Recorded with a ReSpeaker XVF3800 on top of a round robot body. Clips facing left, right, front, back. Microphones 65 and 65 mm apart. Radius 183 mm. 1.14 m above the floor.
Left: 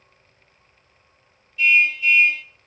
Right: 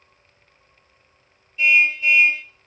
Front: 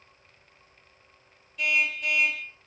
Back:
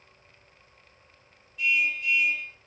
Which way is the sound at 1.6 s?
30° right.